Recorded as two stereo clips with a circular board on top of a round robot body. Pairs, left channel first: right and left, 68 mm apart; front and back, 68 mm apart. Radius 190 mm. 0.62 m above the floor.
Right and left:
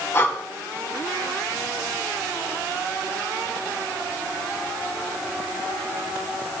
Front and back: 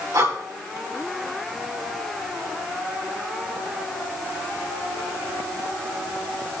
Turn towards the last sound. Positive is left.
turn(degrees=-145)